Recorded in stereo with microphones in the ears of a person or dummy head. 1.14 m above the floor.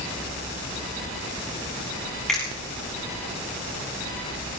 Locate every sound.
2.3 s a finger snap: 5° left (ahead or behind), 7.5 m